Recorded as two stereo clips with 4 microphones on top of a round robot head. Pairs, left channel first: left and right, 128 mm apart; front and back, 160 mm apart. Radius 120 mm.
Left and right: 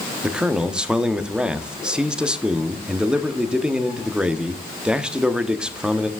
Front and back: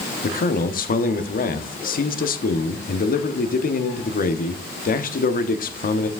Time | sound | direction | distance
0.2 | a man speaking | 5° right | 0.9 m